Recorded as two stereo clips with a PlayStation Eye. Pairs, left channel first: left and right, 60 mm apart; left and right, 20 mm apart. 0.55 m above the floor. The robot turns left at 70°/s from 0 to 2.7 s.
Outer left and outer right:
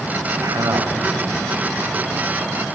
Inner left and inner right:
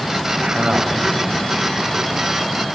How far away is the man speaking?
About 3.5 m.